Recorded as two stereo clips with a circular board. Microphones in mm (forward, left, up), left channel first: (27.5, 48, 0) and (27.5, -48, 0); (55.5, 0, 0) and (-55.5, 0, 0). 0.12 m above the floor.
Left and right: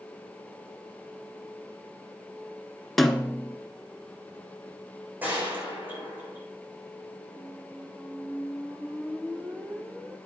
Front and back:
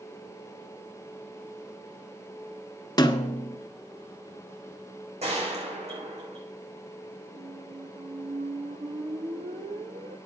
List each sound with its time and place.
3.0 s a snare drum: 5° left, 1.1 m
5.2 s a gunshot: 165° right, 7.5 m
7.3 s a squeak: 165° right, 1.7 m